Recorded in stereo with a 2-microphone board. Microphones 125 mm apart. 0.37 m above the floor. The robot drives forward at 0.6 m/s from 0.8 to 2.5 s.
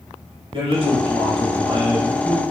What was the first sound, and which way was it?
A man speaking, 45° right (ahead or behind).